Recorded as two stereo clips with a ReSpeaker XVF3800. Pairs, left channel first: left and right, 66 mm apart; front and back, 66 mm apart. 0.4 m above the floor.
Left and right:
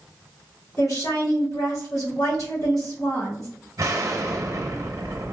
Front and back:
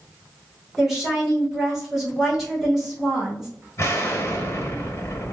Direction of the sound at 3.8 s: 50° right.